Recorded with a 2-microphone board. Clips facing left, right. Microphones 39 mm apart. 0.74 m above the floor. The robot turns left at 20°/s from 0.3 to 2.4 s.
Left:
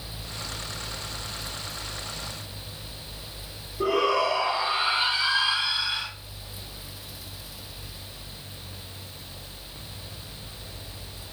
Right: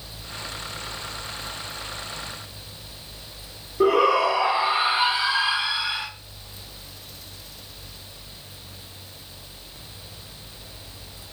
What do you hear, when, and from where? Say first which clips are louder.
3.8 s a shout: right 5 dB; 55° right (ahead or behind), 1.6 m